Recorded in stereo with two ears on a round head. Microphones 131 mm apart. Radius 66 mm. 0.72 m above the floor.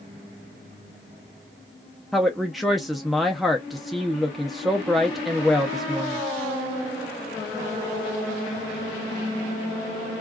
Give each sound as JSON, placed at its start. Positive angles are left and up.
{"t": 2.1, "sound": "a woman speaking", "side_deg": 0, "distance_m": 0.5}